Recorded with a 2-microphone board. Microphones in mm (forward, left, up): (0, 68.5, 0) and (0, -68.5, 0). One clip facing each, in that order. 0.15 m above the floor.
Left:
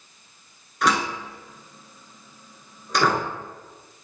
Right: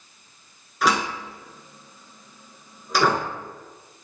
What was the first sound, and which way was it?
A door slam, centre (ahead or behind).